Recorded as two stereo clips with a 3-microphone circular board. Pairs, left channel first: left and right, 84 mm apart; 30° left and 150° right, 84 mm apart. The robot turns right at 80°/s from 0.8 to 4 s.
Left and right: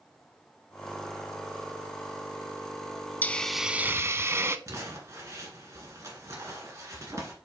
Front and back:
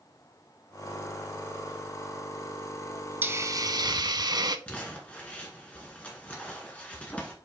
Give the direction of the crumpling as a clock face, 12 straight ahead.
1 o'clock.